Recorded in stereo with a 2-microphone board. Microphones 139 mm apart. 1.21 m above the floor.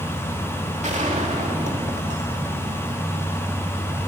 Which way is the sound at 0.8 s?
55° right (ahead or behind).